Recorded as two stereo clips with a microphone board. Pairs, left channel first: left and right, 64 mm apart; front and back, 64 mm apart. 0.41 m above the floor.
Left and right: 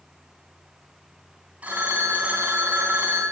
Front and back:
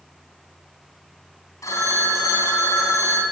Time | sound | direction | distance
1.6 | a phone ringing | 25° right | 3 m